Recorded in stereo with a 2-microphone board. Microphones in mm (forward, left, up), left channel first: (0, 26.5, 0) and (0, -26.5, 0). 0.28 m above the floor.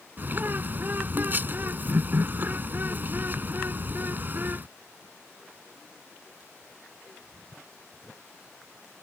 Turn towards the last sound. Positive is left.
turn(degrees=-40)  # may be behind; listen again after turning